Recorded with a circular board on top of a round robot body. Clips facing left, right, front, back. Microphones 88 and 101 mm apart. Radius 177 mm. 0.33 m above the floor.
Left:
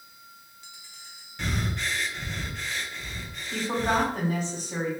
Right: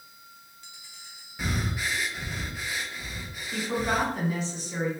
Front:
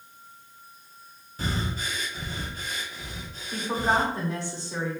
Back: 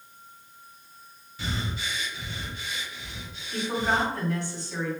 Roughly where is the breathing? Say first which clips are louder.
Even, front 2 dB; ahead.